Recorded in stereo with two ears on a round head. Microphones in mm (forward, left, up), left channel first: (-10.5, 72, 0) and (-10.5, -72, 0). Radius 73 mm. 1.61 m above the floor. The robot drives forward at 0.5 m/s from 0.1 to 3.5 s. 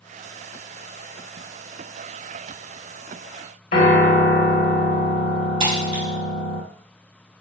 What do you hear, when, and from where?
3.7 s a piano: 55° left (ahead or behind), 2 m
5.6 s breaking glass: 35° right (ahead or behind), 1.9 m